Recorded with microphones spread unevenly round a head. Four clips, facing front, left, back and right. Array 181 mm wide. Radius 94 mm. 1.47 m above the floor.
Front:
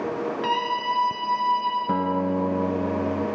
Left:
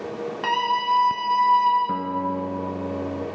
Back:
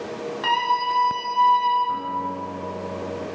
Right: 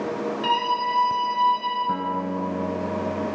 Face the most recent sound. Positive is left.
turn(degrees=10)